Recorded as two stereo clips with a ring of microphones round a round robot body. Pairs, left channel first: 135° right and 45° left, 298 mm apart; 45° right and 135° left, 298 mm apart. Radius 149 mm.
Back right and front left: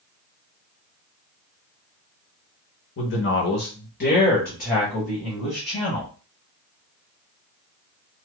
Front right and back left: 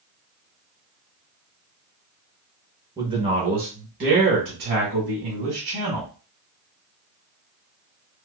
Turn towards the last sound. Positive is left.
turn(degrees=155)